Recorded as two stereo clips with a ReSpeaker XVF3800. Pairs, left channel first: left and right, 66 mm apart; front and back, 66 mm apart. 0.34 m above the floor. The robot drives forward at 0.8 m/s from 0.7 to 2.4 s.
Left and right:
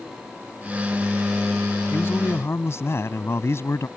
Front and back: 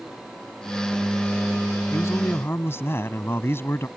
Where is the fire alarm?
No fire alarm in this recording.